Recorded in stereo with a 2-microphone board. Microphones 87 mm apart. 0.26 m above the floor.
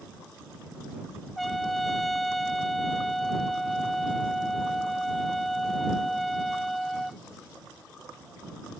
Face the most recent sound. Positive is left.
turn(degrees=0)  # may be behind; listen again after turning